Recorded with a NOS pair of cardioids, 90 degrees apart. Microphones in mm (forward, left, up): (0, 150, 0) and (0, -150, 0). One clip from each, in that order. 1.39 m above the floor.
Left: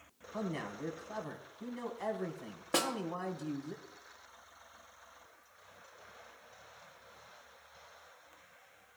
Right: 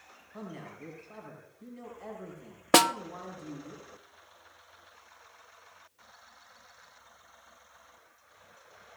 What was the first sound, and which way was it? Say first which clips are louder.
A man speaking: left 5 dB; 55° left.